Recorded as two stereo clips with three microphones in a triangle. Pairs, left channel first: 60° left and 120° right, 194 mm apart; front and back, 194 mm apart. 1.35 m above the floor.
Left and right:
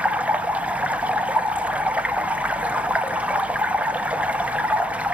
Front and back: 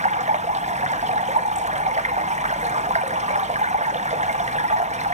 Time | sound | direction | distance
0.0 | running water | 160° left | 0.8 m